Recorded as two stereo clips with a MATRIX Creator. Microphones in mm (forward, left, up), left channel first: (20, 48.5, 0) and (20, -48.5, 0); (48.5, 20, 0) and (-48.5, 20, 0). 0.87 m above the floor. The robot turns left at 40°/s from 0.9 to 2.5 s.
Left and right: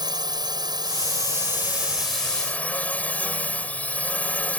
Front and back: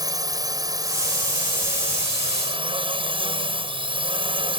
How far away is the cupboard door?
I don't hear a cupboard door.